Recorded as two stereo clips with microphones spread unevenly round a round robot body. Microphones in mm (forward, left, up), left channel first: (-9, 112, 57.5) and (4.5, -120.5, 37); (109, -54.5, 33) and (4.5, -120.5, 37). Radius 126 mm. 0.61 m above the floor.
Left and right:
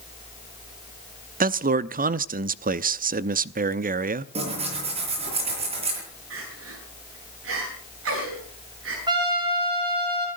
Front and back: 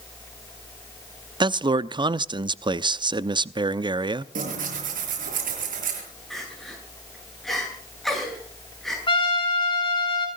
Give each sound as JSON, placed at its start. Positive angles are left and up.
{"t": 1.4, "sound": "a man speaking", "azimuth_deg": -110, "distance_m": 0.8}
{"t": 4.3, "sound": "tearing paper", "azimuth_deg": -155, "distance_m": 6.0}
{"t": 6.3, "sound": "crying", "azimuth_deg": -55, "distance_m": 9.5}
{"t": 9.1, "sound": "a trumpet", "azimuth_deg": -15, "distance_m": 7.5}